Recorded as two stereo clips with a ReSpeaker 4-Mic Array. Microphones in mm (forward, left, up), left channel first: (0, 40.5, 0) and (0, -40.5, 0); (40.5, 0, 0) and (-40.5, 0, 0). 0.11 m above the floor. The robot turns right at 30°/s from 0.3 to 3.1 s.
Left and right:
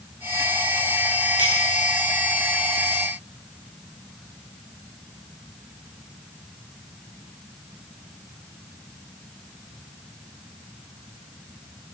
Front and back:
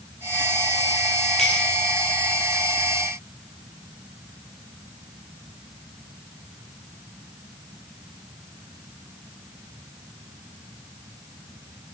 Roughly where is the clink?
Left.